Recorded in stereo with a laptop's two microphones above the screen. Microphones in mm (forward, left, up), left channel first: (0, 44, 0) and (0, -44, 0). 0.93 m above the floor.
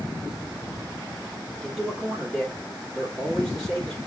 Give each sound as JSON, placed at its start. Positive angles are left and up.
{"t": 1.6, "sound": "a man speaking", "side_deg": 0, "distance_m": 2.5}